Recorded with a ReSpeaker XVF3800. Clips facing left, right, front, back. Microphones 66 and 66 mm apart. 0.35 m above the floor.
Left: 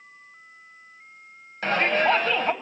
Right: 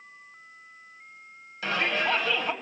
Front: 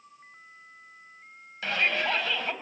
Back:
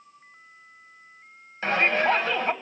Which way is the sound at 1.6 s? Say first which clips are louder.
Left 5 dB, back 5 dB; 125° left.